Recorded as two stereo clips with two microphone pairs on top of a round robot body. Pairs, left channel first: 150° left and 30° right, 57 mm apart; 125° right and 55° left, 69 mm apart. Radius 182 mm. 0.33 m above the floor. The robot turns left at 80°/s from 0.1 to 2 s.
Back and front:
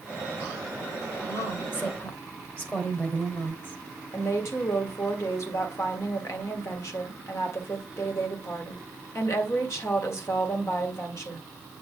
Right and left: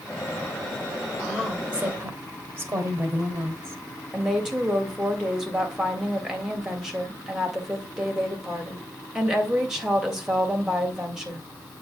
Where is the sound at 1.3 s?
160° left, 2.5 m; by 3.8 s 100° left, 2.5 m.